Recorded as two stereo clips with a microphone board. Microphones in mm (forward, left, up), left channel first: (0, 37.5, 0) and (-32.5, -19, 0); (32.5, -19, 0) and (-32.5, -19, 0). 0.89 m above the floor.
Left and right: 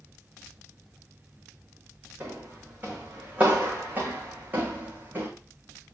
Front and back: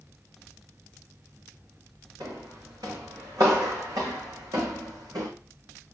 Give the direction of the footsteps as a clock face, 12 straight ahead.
6 o'clock.